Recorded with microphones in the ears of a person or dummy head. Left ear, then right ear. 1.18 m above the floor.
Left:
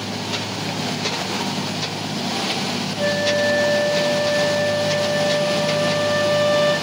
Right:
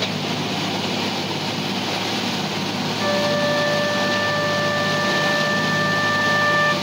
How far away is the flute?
About 1.4 m.